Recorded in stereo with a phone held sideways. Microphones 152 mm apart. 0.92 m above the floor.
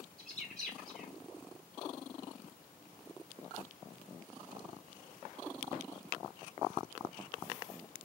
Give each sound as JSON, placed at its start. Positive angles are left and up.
{"t": 0.2, "sound": "a bird", "side_deg": 5, "distance_m": 1.2}